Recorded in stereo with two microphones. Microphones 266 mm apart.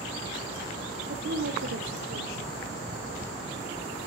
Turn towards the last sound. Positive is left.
turn(degrees=-60)  # may be behind; listen again after turning